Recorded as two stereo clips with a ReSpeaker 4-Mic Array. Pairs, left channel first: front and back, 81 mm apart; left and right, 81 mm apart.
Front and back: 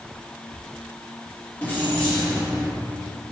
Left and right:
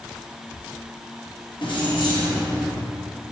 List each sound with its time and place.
1.6 s keys jangling: 70° left, 0.9 m; by 2.7 s 80° left, 2 m